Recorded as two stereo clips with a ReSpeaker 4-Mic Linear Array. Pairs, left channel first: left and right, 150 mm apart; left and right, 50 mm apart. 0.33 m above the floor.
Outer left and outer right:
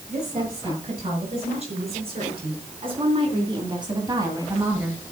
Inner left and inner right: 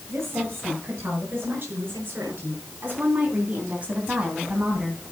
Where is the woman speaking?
50° right (ahead or behind), 7 m; by 5.0 s 10° right (ahead or behind), 1.8 m.